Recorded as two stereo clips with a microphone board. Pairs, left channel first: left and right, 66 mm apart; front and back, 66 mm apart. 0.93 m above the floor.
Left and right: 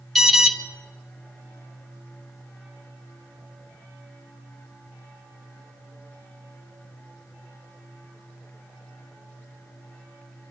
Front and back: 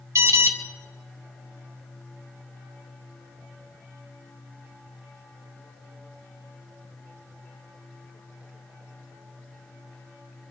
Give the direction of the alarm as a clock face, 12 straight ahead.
6 o'clock.